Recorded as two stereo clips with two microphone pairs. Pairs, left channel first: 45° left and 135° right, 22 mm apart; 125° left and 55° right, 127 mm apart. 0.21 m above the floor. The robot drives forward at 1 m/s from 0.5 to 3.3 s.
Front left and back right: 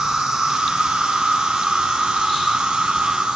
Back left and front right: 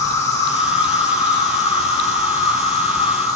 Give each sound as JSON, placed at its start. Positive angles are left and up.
{"t": 0.0, "sound": "an insect", "azimuth_deg": -170, "distance_m": 7.0}